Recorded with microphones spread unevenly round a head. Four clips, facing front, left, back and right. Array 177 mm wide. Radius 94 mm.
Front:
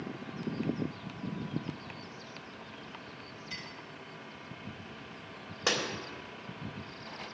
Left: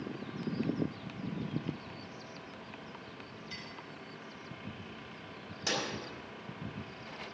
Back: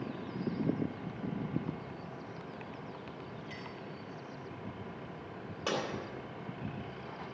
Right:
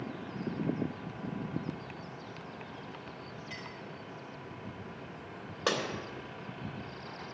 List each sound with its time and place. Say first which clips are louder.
3.5 s a clink: right 3 dB, back 2 dB; 105° right, 3.5 m
5.7 s breaking glass: right 4 dB, front 1 dB; 55° right, 3 m